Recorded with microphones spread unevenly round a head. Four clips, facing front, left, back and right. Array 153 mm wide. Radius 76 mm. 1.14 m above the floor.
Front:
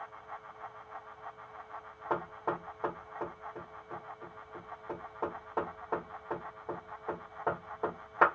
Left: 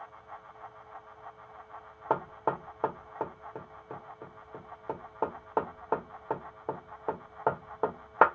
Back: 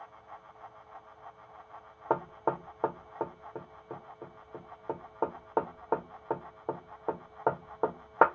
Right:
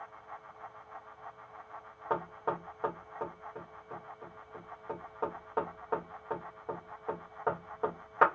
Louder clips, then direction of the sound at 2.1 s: Left 4 dB, back 4 dB; 140° left.